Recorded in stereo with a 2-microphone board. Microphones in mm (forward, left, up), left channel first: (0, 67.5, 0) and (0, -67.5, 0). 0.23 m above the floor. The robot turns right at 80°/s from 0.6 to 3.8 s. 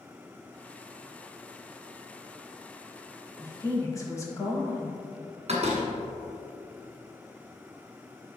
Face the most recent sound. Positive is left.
turn(degrees=-50)  # may be behind; listen again after turning